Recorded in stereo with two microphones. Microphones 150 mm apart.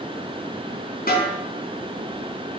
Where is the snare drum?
70° left (ahead or behind), 4 m.